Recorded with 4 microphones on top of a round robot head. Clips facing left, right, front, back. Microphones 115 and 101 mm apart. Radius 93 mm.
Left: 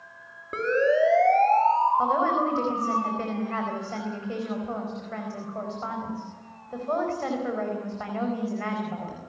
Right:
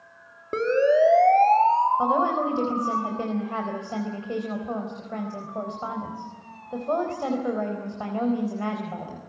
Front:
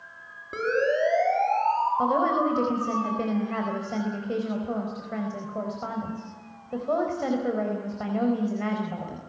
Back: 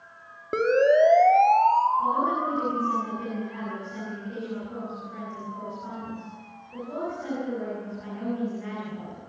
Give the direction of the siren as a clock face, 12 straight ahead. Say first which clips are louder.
Right 3 dB, back 5 dB; 5 o'clock.